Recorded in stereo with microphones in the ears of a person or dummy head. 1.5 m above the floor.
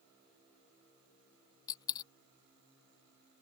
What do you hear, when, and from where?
1.7 s a dropped coin: 20° left (ahead or behind)